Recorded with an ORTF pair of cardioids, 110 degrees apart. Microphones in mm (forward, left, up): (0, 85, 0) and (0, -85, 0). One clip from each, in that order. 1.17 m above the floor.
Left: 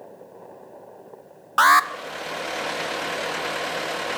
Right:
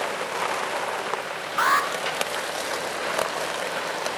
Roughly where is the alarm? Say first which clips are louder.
Left 6 dB; ahead left.